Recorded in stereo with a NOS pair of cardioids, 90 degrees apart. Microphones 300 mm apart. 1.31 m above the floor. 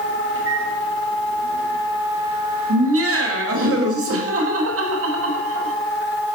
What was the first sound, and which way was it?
A microwave, 45° right.